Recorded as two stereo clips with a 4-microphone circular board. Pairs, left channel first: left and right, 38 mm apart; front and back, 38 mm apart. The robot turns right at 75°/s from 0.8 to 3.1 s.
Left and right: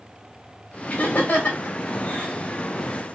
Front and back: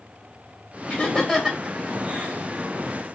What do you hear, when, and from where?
0.9 s laughter: 50° left, 2 m; by 2.5 s 170° left, 2 m